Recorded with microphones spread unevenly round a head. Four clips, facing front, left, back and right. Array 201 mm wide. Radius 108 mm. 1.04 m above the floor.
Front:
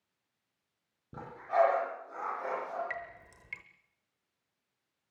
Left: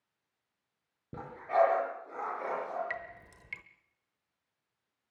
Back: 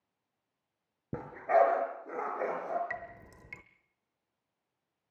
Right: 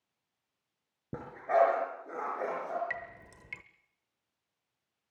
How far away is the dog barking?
About 5 m.